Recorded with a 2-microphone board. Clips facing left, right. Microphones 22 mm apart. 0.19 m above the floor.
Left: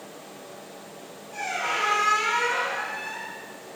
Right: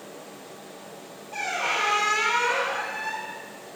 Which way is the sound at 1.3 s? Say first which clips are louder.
Right 1 dB; 35° right (ahead or behind).